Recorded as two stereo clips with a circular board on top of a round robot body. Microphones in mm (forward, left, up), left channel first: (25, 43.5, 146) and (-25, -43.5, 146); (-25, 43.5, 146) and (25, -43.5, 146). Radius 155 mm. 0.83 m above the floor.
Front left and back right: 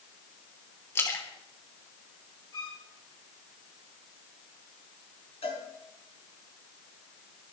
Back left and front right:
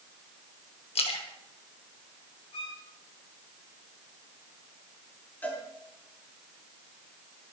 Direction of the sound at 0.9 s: 125° left.